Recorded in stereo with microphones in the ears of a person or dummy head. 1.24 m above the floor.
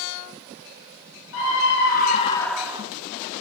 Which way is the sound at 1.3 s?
65° left (ahead or behind).